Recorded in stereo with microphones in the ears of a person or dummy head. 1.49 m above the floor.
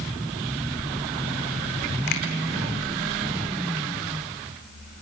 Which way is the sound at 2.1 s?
50° left (ahead or behind).